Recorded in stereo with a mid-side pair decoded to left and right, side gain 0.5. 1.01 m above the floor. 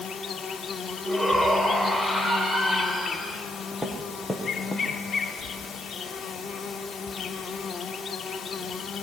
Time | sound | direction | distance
0.0 | an insect | 45° left | 1.6 m
1.1 | a shout | 5° right | 4.5 m
3.7 | footsteps | 5° right | 5 m